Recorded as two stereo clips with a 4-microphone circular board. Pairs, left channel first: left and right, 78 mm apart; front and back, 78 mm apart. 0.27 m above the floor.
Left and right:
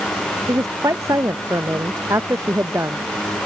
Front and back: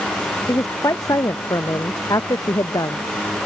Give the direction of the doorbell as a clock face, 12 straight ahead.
No doorbell in this recording.